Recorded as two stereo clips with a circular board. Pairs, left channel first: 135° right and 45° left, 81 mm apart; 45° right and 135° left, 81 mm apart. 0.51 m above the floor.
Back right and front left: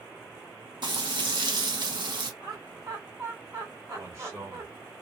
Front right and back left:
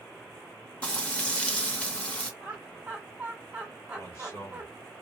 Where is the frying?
30° left, 0.9 m.